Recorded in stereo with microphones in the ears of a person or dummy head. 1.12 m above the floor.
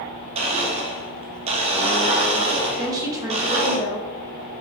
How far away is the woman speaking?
About 0.8 m.